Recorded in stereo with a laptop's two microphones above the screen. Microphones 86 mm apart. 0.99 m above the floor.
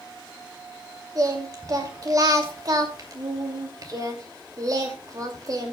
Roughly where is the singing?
Right.